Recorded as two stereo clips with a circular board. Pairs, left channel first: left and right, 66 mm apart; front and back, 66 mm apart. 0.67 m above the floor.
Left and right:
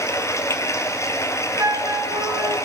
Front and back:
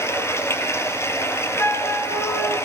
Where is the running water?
45° left, 3 m.